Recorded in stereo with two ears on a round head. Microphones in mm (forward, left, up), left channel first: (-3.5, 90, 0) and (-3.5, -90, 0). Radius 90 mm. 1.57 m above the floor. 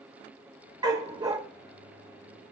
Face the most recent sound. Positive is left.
turn(degrees=-20)  # may be behind; listen again after turning